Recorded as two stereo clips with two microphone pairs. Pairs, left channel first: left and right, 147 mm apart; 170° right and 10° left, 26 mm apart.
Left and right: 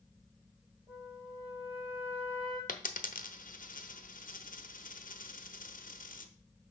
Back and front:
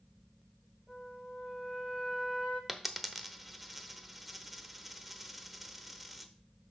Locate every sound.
0.9 s a flute: 35° right, 5 m
2.7 s a dropped coin: 90° left, 0.8 m